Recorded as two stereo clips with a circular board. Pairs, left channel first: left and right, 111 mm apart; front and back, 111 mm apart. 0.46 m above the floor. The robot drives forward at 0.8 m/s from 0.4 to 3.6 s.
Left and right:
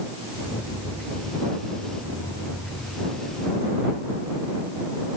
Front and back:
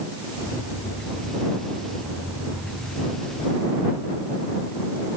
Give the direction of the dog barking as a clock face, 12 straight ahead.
I don't hear a dog barking.